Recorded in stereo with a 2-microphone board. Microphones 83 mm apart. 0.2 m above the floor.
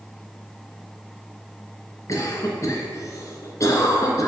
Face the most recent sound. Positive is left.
turn(degrees=40)  # may be behind; listen again after turning